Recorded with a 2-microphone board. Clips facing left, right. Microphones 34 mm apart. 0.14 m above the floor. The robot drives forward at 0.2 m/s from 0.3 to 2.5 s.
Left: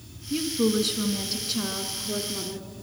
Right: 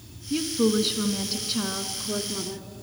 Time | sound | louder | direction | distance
0.3 | a woman speaking | right 1 dB | 15° right (ahead or behind) | 1.4 m